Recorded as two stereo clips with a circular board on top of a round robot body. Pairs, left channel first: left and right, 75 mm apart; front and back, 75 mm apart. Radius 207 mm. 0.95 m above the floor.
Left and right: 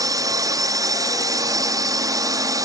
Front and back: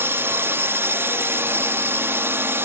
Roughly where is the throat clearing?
I don't hear throat clearing.